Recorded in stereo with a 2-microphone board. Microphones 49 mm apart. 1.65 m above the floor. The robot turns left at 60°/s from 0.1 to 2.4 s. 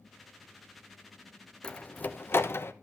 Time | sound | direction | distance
1.6 | a door slam | 20° left (ahead or behind) | 1.1 m